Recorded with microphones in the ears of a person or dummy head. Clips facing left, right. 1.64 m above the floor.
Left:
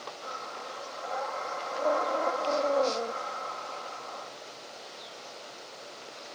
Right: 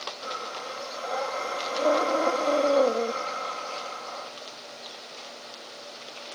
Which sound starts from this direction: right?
Breathing, at 0.2 s.